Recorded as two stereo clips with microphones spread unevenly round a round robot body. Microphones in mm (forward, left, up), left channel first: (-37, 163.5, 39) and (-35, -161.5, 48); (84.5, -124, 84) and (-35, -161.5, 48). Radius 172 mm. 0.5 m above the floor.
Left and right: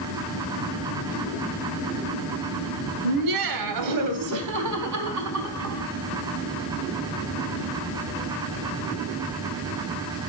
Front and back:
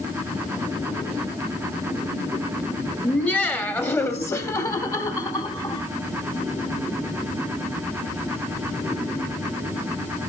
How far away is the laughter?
About 2.5 m.